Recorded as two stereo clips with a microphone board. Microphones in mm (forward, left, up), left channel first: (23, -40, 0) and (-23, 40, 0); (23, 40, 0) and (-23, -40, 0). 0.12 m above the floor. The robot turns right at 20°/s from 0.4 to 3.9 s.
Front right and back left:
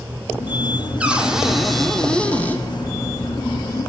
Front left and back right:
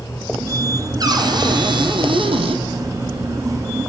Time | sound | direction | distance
1.0 | a cupboard door | 165° right | 2.5 m